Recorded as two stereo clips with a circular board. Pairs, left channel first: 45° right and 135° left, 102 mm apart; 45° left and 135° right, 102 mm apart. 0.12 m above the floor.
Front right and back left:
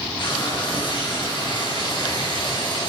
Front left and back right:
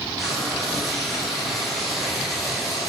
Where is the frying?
45° right, 2.5 m.